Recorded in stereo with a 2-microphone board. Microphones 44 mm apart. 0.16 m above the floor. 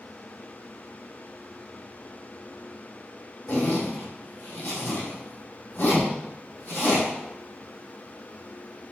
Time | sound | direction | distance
3.5 | a zipper | 45° left (ahead or behind) | 3 m